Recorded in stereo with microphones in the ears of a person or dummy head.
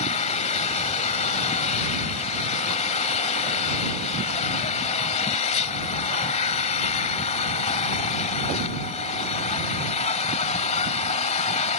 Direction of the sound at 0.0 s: 40° left (ahead or behind).